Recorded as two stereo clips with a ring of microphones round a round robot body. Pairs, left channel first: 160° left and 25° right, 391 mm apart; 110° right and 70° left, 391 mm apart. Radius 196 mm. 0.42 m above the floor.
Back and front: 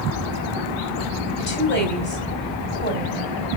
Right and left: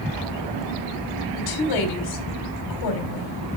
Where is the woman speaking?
140° right, 3 m.